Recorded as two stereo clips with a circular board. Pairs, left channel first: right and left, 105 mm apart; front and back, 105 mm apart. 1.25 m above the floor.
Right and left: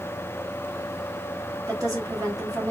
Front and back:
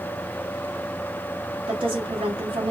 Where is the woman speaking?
145° left, 1.7 m.